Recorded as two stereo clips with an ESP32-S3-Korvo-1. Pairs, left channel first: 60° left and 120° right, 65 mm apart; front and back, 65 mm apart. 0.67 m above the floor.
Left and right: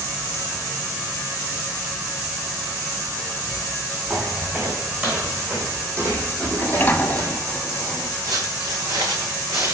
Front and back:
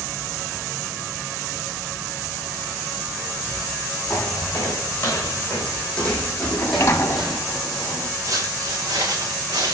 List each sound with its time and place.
4.1 s footsteps: 60° right, 3 m; by 7.4 s 95° right, 1.9 m
6.5 s a sliding door: 10° left, 1.1 m
8.2 s footsteps: 145° right, 3 m; by 9.8 s 160° right, 3 m